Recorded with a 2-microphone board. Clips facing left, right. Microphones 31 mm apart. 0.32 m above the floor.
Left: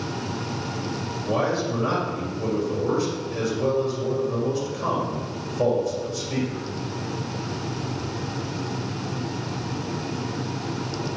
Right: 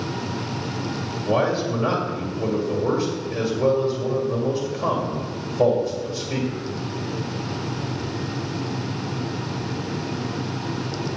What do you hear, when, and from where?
1.3 s a man speaking: 10° right (ahead or behind), 1.7 m